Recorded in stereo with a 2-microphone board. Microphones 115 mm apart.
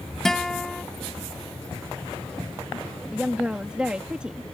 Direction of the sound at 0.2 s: 5° left (ahead or behind).